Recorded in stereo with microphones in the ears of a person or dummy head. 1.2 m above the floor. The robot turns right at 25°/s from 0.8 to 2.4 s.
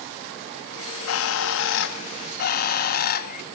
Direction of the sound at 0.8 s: 85° left.